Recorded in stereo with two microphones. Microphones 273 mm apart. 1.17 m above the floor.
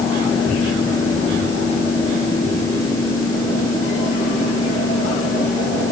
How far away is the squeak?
I don't hear a squeak.